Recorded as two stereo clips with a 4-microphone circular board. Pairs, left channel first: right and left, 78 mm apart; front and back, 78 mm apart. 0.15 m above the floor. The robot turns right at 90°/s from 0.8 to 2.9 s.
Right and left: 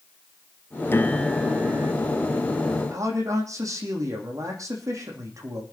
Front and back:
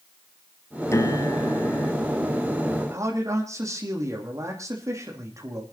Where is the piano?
40° right, 0.8 m; by 1.9 s 50° left, 0.8 m.